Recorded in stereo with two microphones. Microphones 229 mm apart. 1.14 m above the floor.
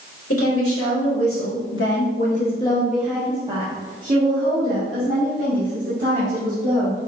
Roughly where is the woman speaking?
Left.